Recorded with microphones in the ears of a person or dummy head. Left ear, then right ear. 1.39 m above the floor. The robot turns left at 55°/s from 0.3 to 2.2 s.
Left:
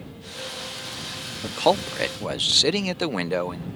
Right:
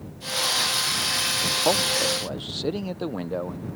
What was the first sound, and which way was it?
A man speaking, 105° left.